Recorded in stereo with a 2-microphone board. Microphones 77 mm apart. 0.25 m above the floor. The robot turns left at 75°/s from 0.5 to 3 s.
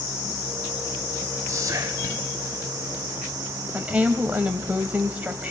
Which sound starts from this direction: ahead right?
Whispering, at 1.5 s.